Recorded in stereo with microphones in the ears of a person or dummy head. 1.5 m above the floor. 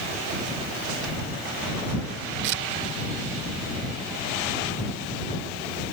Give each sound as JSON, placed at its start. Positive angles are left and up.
{"t": 2.4, "sound": "tearing paper", "side_deg": -65}